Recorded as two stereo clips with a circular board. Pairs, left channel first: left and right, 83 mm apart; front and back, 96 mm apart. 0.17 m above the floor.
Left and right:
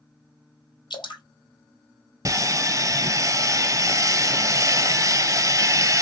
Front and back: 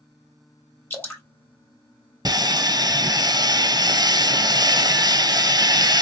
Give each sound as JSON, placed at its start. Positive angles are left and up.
{"t": 0.9, "sound": "dripping", "azimuth_deg": 70, "distance_m": 1.8}
{"t": 2.2, "sound": "sawing", "azimuth_deg": -135, "distance_m": 0.6}